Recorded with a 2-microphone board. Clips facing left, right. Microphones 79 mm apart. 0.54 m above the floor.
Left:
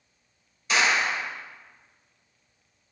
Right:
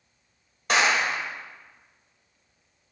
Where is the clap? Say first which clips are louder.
Right 1 dB; 70° right (ahead or behind), 2.0 m.